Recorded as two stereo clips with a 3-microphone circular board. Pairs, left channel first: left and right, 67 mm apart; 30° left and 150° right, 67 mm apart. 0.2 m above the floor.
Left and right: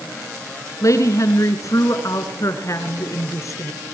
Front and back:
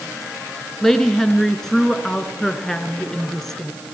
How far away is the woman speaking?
About 3 m.